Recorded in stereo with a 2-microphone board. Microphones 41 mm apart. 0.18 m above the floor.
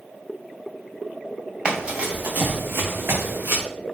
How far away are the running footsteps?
About 1.0 m.